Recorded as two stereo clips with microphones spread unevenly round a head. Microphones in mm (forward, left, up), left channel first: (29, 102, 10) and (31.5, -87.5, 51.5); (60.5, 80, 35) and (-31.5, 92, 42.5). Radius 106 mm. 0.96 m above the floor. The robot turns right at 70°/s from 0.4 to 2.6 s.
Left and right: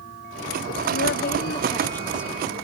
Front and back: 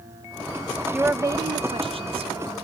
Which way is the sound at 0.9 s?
90° left.